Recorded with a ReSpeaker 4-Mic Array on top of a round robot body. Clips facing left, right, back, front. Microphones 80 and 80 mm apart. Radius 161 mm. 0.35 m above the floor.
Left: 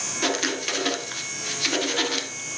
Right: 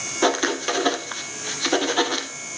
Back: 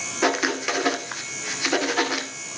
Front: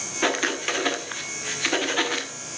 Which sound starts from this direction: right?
Writing, at 0.2 s.